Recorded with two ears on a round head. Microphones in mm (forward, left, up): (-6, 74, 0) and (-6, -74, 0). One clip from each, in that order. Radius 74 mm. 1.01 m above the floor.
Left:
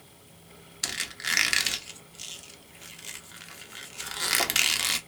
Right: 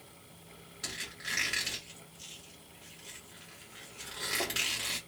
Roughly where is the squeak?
Left.